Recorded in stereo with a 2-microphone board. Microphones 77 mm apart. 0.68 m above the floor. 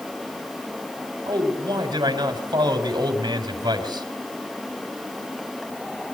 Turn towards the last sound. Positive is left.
turn(degrees=-60)  # may be behind; listen again after turning